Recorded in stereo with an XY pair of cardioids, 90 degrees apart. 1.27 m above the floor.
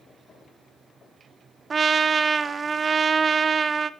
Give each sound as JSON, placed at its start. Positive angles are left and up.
{"t": 1.7, "sound": "a trumpet", "azimuth_deg": -45, "distance_m": 0.7}